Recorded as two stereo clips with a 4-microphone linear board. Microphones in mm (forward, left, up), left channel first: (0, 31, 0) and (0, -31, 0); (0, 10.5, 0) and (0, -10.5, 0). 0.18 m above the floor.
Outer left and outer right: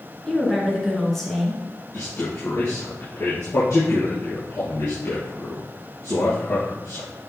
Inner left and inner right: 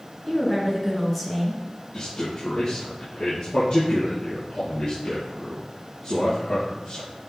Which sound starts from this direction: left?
A man speaking, at 1.9 s.